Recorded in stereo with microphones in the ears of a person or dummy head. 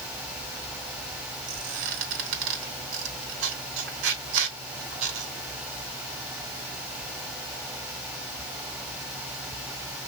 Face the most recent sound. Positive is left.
turn(degrees=-75)  # may be behind; listen again after turning